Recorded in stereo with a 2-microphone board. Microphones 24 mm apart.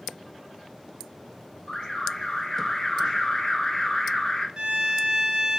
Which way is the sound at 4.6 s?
30° right (ahead or behind).